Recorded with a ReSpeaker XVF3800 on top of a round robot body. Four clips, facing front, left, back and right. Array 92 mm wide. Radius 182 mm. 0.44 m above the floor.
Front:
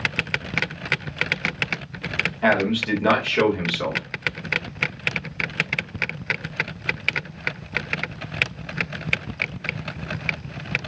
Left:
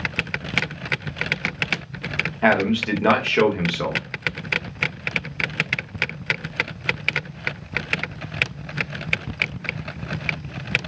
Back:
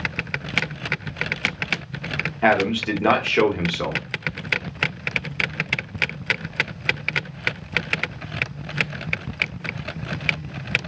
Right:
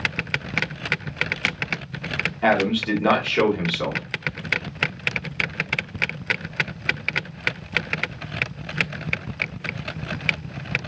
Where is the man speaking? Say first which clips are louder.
Left 1 dB, back 2 dB; 135° left, 1.3 m.